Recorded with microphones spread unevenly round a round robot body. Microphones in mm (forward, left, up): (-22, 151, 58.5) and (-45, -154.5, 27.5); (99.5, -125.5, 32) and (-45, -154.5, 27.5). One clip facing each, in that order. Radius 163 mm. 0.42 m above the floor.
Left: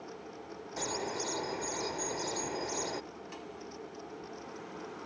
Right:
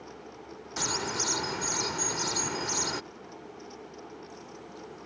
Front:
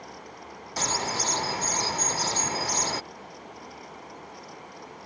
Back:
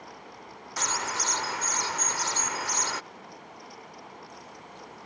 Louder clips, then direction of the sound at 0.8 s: Right 2 dB, front 3 dB; 45° right.